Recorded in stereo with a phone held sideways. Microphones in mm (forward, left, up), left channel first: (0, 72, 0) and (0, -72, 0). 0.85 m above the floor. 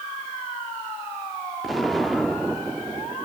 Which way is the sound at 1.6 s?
Centre (ahead or behind).